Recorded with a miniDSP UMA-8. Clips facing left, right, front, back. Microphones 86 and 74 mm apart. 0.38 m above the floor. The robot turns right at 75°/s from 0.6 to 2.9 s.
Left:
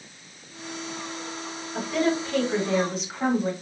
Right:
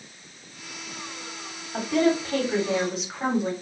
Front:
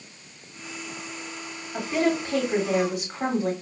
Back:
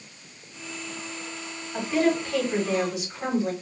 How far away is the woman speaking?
About 2.0 m.